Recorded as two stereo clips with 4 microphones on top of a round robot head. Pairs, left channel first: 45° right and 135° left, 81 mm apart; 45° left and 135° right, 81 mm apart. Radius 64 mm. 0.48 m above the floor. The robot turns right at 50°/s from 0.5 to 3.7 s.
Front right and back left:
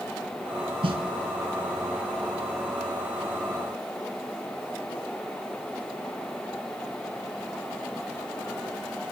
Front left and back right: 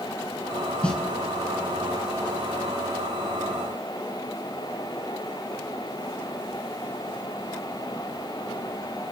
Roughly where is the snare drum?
Behind left.